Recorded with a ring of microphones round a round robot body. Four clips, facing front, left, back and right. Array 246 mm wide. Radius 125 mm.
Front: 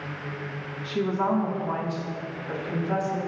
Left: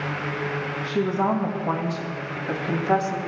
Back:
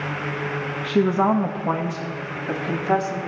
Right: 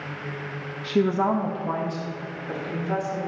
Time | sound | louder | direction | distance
0.8 | a woman speaking | right 2 dB, back 6 dB | 150° right | 1.1 m